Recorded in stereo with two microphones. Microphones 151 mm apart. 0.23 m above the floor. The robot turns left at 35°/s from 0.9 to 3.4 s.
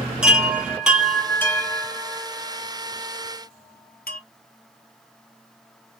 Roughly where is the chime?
Centre.